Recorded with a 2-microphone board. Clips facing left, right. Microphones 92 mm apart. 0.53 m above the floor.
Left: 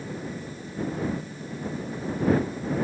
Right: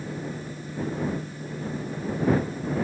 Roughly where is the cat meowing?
I don't hear a cat meowing.